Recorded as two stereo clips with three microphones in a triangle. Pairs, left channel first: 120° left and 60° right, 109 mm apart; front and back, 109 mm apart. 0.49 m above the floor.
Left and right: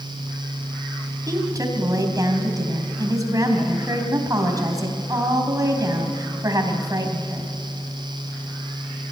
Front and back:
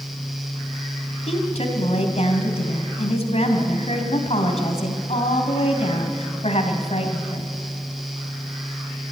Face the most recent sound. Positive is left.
turn(degrees=-5)